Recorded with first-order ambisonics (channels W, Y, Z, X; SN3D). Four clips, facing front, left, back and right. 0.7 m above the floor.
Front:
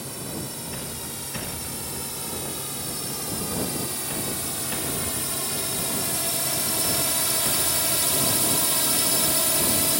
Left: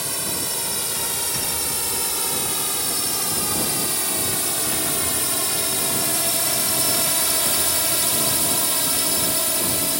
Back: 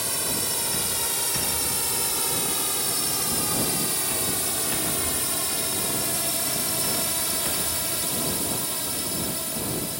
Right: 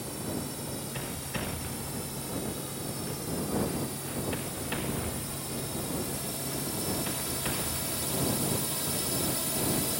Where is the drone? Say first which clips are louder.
Left 8 dB, back 5 dB; 125° left; by 10.0 s 45° left.